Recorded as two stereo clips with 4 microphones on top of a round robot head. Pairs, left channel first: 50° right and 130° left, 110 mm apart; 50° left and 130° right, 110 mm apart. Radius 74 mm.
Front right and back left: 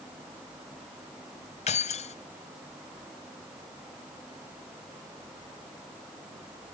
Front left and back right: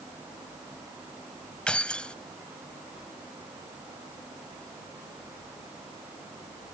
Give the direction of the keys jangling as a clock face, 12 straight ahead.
1 o'clock.